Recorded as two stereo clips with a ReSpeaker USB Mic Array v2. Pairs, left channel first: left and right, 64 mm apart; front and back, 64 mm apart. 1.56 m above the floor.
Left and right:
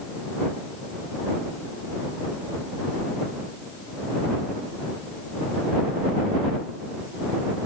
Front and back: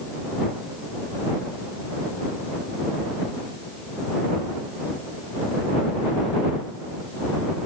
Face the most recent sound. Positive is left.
No sound to turn to.